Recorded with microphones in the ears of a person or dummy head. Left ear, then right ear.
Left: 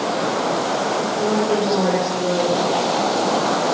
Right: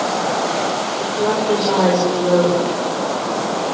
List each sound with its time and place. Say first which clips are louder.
1.0 s a woman speaking: right 1 dB; 70° right (ahead or behind), 8 m